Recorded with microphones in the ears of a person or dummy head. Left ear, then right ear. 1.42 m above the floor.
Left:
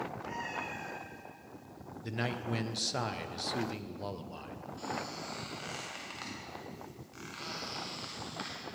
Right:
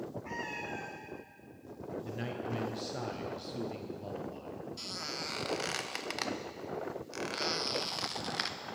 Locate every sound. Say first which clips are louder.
0.2 s a cat meowing: right 1 dB; 10° right (ahead or behind), 0.6 m
2.0 s a man speaking: left 6 dB; 35° left (ahead or behind), 0.7 m
4.8 s a squeak: left 1 dB; 40° right (ahead or behind), 0.7 m